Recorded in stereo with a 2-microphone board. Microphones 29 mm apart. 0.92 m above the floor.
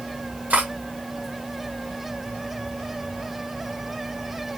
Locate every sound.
0.5 s cutlery clinking: 80° right, 1.2 m